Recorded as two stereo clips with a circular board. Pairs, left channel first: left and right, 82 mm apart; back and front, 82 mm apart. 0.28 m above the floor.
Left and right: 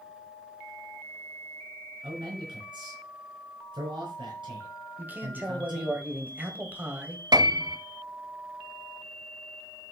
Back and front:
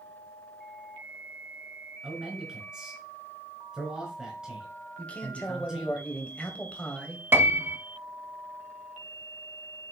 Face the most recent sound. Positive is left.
turn(degrees=-60)